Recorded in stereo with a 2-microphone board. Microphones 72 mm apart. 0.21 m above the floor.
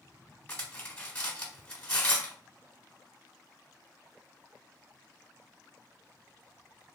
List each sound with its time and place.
0.5 s cutlery clinking: 20° left (ahead or behind), 0.9 m